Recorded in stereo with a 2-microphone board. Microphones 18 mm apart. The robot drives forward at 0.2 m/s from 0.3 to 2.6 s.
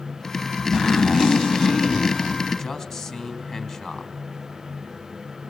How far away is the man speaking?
About 3.5 m.